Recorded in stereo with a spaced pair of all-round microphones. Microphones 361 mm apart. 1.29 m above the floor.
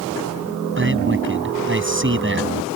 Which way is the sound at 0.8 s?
35° right (ahead or behind).